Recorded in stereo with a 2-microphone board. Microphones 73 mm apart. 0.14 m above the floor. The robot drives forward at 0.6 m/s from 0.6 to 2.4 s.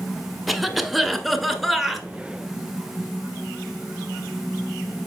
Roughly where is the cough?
Centre.